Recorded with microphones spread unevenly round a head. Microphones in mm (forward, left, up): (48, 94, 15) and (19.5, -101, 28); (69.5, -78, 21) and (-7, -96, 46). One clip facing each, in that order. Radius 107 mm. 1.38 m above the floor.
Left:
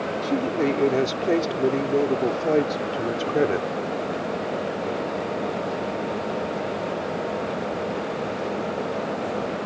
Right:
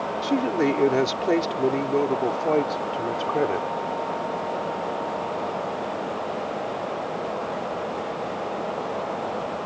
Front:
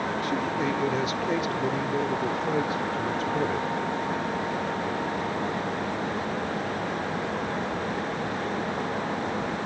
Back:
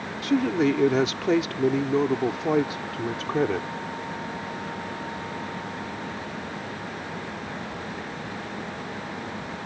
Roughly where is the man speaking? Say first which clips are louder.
Right 1 dB, back 9 dB; behind.